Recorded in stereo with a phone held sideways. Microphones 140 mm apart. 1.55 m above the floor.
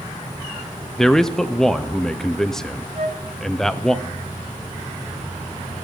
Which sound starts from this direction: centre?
A man speaking, at 1.0 s.